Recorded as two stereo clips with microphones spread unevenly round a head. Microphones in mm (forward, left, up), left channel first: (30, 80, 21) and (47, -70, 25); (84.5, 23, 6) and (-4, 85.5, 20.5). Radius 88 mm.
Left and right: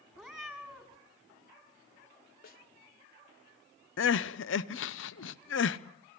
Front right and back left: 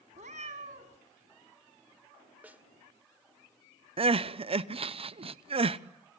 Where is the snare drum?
75° left, 2.0 m.